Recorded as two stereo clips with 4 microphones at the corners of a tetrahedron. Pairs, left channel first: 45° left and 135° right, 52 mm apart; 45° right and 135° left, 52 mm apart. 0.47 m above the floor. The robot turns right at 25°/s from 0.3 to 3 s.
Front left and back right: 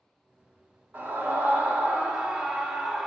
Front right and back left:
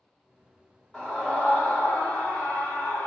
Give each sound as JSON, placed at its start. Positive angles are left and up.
{"t": 0.9, "sound": "a scream", "azimuth_deg": -105, "distance_m": 1.3}